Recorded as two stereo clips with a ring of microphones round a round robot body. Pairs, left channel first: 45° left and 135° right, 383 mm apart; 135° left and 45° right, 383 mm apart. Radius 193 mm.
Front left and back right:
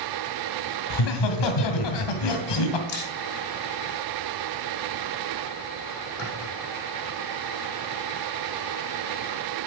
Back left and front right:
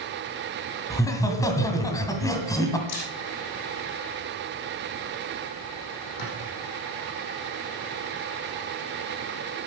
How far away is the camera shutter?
About 6 m.